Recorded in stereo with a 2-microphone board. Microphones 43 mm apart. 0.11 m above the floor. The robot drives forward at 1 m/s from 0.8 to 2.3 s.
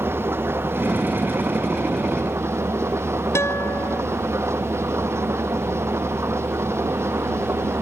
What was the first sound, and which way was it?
An engine running, 60° right (ahead or behind).